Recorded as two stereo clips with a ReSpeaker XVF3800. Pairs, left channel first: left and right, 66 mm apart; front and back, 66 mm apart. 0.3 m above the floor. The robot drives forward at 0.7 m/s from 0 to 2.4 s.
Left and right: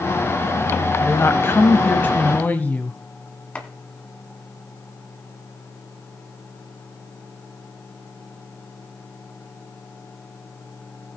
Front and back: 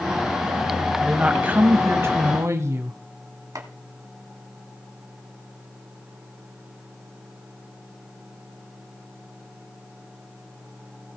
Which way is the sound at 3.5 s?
155° left.